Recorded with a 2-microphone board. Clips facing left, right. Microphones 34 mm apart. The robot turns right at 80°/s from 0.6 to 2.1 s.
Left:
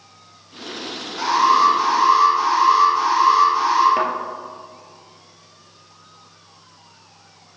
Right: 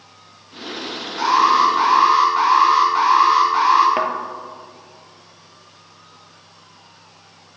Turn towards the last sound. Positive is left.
turn(degrees=-15)  # may be behind; listen again after turning